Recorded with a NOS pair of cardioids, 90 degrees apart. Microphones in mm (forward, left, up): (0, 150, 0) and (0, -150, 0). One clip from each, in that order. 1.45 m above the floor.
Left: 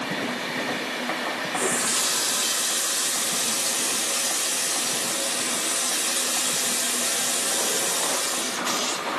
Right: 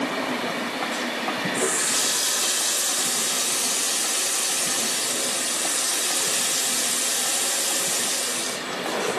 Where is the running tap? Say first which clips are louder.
Left 1 dB; 20° right, 4.5 m.